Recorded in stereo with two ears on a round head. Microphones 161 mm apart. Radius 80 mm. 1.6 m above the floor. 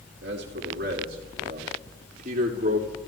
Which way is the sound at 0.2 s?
65° right (ahead or behind).